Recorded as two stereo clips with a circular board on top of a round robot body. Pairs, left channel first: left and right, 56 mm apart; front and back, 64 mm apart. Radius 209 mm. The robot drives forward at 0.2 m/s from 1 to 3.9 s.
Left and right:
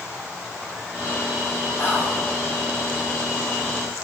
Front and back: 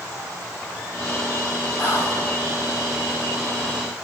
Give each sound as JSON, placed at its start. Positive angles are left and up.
{"t": 1.8, "sound": "whispering", "azimuth_deg": 55, "distance_m": 1.6}